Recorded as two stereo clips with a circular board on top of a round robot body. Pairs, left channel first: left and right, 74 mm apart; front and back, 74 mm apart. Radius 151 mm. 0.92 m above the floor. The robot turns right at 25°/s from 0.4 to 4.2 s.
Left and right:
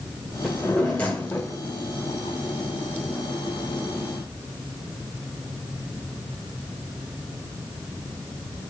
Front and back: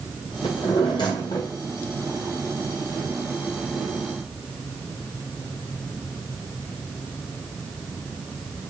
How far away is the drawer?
About 0.7 m.